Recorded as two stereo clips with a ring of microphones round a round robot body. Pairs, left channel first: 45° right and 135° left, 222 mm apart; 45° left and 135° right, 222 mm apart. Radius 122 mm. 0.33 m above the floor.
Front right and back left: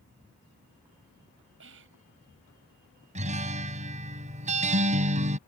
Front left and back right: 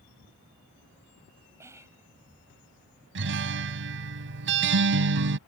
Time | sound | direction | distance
1.6 | whispering | 150° left | ?
3.1 | a guitar | 165° right | ?